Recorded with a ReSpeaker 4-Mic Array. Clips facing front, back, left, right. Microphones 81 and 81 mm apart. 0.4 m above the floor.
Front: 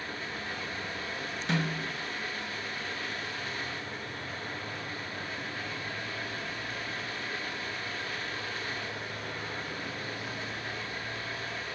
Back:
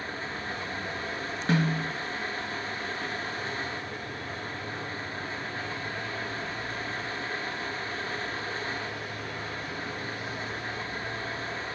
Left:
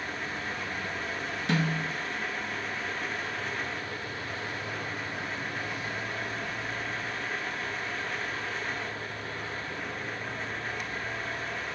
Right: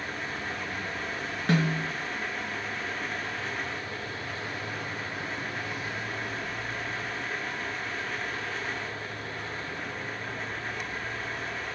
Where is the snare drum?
135° right, 1.8 m.